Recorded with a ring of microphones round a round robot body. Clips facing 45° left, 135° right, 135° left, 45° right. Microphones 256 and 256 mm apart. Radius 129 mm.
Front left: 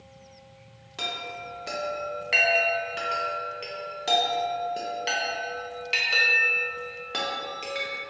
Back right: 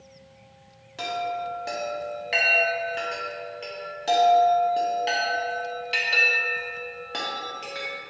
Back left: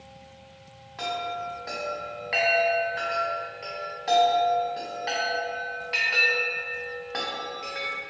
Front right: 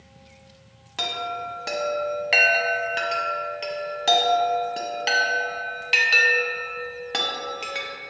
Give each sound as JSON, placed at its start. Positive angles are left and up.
{"t": 1.0, "sound": "a chime", "azimuth_deg": -35, "distance_m": 0.6}